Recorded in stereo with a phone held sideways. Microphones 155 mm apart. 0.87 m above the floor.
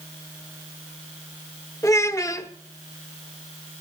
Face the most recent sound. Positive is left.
turn(degrees=20)  # may be behind; listen again after turning